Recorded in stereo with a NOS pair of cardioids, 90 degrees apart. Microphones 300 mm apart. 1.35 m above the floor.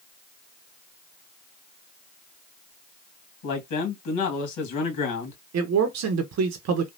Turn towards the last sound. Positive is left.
turn(degrees=-55)